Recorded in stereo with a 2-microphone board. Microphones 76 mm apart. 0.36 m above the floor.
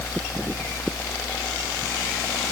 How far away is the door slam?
No door slam in this recording.